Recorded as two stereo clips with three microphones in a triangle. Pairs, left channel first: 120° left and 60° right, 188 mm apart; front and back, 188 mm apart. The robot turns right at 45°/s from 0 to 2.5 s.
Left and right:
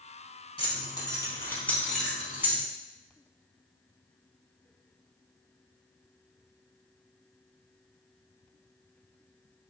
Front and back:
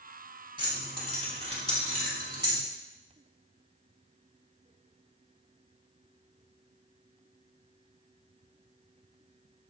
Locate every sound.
0.6 s keys jangling: 145° left, 0.8 m; by 2.6 s 130° right, 0.8 m